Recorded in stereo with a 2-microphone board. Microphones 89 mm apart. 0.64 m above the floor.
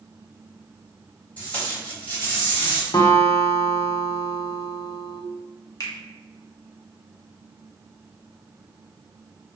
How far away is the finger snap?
About 0.7 m.